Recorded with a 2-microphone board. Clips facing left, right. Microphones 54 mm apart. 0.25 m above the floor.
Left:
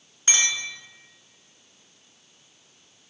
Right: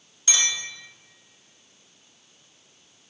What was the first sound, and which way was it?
A clink, 35° left (ahead or behind).